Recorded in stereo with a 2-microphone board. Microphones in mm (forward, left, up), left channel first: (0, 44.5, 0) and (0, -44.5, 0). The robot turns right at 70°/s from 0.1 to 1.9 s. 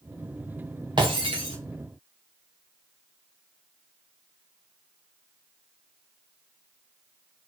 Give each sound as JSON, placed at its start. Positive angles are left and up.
{"t": 1.0, "sound": "breaking glass", "azimuth_deg": -120, "distance_m": 3.5}